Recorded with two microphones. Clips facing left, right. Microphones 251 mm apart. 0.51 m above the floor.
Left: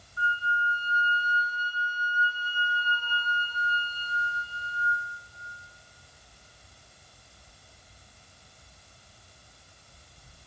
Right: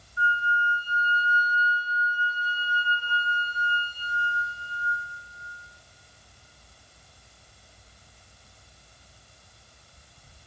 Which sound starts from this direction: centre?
A flute, at 0.2 s.